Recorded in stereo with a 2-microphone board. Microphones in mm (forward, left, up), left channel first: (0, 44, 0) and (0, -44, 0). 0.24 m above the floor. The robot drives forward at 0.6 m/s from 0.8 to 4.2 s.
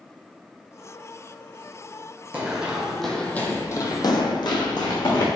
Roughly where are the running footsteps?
Centre.